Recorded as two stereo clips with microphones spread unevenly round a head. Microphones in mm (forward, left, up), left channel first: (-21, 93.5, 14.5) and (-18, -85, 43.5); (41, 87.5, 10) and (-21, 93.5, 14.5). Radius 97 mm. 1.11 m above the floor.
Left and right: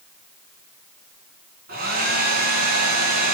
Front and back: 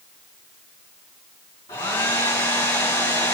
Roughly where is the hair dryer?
Ahead right.